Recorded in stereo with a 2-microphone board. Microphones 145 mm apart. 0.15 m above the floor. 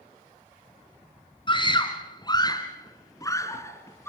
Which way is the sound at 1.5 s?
35° left (ahead or behind).